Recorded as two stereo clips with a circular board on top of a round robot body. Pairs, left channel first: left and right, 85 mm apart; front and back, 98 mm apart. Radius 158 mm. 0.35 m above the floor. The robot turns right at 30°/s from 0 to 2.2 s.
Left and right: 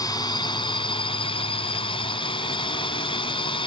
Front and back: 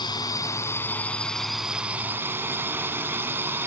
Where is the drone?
45° left; by 3.7 s 110° left.